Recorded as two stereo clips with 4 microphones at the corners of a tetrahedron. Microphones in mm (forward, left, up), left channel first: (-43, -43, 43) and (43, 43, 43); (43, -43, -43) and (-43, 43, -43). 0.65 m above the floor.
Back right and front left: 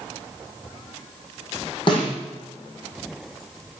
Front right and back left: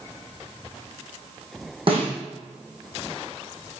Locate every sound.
1.9 s a snare drum: 175° left, 6.5 m